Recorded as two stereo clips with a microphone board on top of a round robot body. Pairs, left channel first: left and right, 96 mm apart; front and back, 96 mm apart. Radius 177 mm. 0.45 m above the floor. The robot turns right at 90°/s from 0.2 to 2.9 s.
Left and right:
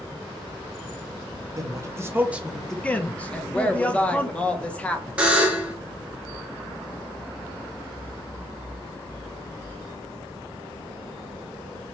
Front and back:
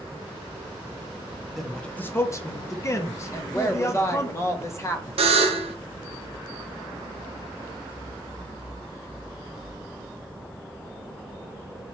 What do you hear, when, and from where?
1.6 s a man speaking: 95° right, 0.8 m; by 4.3 s 25° left, 0.8 m
3.3 s a woman speaking: 20° left, 1.0 m
5.2 s a buzzer: 170° right, 0.6 m